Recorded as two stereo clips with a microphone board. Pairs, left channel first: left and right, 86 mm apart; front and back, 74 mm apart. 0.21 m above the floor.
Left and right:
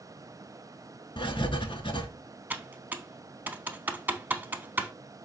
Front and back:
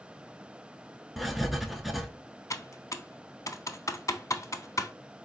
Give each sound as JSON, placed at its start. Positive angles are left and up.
{"t": 1.2, "sound": "writing", "azimuth_deg": 90, "distance_m": 0.6}
{"t": 2.5, "sound": "typing on a keyboard", "azimuth_deg": -25, "distance_m": 0.5}